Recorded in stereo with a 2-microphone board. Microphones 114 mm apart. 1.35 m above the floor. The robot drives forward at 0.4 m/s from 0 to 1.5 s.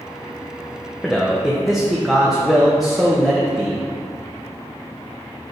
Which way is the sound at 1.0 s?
Centre (ahead or behind).